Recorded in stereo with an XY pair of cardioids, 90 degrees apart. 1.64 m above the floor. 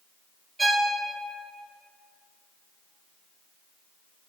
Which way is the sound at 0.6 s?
15° right.